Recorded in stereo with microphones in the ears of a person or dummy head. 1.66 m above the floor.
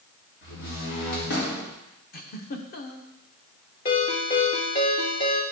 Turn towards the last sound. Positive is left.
turn(degrees=35)  # may be behind; listen again after turning